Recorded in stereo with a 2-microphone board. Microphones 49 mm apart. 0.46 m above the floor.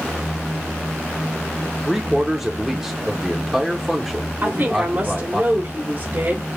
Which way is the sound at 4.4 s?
40° right (ahead or behind).